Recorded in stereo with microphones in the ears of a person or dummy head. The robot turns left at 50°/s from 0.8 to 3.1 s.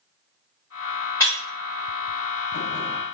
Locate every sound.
1.2 s breaking glass: 15° left (ahead or behind), 0.9 m; by 1.4 s 20° left (ahead or behind), 0.9 m